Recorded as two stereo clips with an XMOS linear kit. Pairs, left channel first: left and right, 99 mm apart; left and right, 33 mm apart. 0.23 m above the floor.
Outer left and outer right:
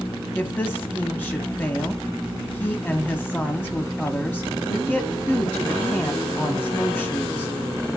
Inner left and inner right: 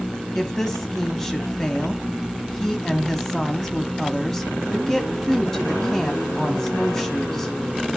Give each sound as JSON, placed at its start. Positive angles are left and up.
{"t": 0.3, "sound": "a woman speaking", "side_deg": 20, "distance_m": 1.6}